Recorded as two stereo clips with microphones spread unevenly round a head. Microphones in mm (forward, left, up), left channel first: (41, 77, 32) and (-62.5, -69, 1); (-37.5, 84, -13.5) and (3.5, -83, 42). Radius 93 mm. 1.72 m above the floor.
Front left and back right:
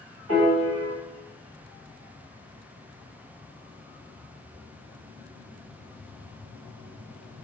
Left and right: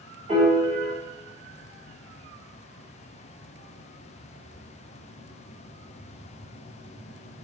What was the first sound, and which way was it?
A piano, 125° right.